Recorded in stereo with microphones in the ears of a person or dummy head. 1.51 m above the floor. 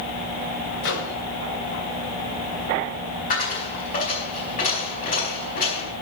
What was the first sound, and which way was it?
A microwave, 80° left.